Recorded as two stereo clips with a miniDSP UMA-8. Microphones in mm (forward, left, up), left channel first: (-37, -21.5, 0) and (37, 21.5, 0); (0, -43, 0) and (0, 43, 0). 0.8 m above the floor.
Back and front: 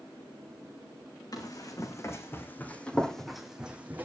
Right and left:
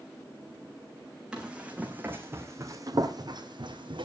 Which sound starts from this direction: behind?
Running footsteps, at 1.3 s.